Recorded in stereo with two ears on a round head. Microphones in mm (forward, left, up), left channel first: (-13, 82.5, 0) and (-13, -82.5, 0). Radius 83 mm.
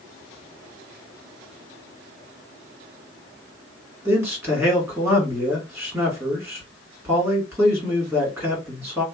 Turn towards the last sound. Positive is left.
turn(degrees=-15)  # may be behind; listen again after turning